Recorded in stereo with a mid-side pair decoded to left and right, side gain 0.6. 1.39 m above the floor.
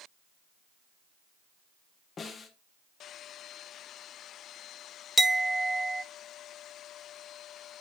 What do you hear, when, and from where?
2.2 s a snare drum: 35° left, 1.6 m
5.2 s a clink: 5° right, 0.7 m